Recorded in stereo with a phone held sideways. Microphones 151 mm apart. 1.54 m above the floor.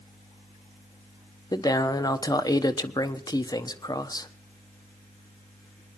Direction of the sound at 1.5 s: 25° left (ahead or behind).